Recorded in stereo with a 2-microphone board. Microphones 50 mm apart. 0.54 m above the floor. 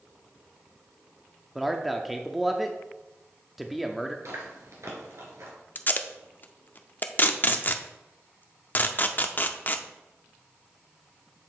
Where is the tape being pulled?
40° left (ahead or behind), 0.5 m.